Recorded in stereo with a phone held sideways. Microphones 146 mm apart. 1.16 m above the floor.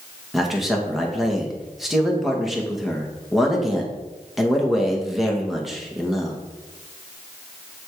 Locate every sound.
0.3 s a man speaking: centre (ahead or behind), 1.6 m